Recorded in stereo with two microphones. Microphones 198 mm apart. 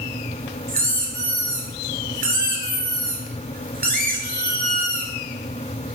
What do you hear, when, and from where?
0.7 s a squeak: 50° right (ahead or behind), 0.7 m